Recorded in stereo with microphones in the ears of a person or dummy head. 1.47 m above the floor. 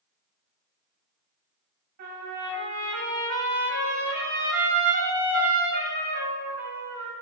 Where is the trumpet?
45° right (ahead or behind), 1.2 m.